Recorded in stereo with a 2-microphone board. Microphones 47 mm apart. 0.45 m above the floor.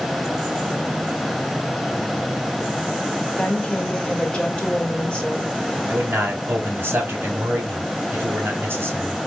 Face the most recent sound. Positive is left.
turn(degrees=-45)  # may be behind; listen again after turning